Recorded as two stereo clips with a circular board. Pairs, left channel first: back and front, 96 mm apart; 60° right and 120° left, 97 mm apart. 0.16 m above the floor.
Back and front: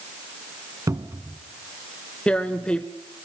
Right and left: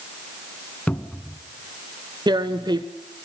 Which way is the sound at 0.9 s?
5° left.